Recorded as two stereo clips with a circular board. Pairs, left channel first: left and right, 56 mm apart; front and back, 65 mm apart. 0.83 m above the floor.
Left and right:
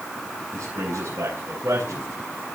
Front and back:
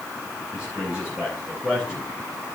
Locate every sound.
0.5 s a man speaking: 100° right, 6 m